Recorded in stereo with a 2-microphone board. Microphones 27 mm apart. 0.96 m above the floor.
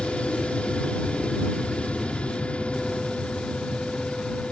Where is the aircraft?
50° left (ahead or behind).